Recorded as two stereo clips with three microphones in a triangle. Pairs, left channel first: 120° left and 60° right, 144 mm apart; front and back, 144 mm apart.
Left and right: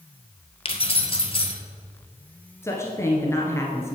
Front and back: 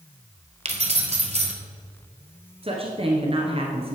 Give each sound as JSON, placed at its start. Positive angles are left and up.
{"t": 0.7, "sound": "keys jangling", "azimuth_deg": 155, "distance_m": 1.3}
{"t": 2.6, "sound": "a woman speaking", "azimuth_deg": 180, "distance_m": 1.4}